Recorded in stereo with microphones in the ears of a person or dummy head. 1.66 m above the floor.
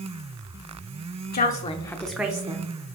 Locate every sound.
1.3 s a woman speaking: 50° left (ahead or behind), 0.6 m; by 3.0 s 35° right (ahead or behind), 0.8 m